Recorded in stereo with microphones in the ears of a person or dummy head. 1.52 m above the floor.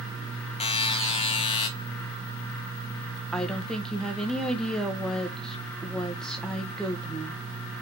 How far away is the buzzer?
About 1.2 m.